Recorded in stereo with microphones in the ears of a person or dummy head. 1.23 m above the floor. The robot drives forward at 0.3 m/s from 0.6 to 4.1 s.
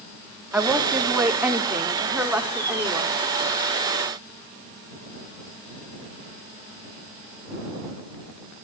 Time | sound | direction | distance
0.5 | a woman speaking | 5° right (ahead or behind) | 2.5 m